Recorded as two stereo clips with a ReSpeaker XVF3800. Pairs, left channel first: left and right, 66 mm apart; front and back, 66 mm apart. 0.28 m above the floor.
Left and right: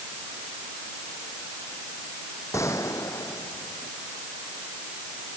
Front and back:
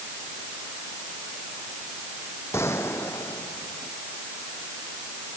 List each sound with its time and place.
2.5 s a gunshot: 50° left